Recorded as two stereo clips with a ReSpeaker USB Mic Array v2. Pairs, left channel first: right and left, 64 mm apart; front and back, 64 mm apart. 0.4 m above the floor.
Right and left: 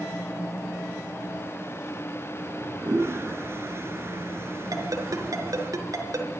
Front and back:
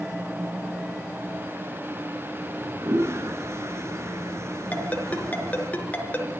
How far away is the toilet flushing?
About 2.5 m.